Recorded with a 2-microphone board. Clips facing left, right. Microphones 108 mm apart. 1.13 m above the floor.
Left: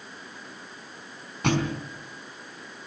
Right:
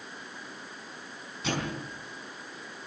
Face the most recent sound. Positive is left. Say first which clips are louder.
# left 7 dB
turn(degrees=65)  # may be behind; listen again after turning